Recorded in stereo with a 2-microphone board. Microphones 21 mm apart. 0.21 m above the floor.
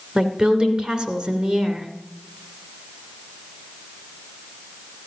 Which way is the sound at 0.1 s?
50° right (ahead or behind).